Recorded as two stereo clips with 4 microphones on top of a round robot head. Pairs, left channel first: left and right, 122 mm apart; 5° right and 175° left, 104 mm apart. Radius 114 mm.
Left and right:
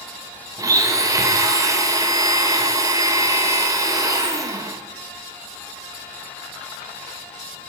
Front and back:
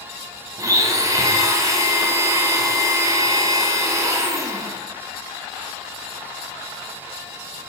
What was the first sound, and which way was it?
A blender, 145° right.